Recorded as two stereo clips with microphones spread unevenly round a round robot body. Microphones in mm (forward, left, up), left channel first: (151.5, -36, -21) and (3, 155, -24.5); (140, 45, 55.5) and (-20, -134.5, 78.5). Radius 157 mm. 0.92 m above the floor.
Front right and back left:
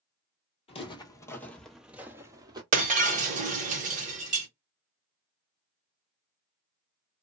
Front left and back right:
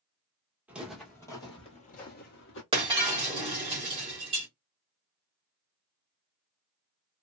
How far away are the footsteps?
About 1.0 m.